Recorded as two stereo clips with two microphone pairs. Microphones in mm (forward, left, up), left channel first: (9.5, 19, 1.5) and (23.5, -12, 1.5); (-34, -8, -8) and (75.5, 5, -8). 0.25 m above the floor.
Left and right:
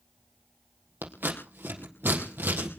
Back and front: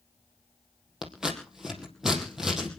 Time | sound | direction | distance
1.0 | scissors | 80° right | 4 m